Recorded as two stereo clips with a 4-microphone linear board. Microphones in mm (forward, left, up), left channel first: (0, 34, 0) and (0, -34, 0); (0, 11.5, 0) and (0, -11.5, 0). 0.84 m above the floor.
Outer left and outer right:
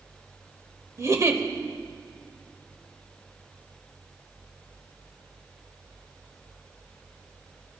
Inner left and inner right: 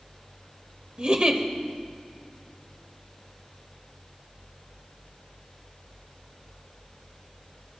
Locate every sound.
1.0 s a giggle: 45° right (ahead or behind), 1.2 m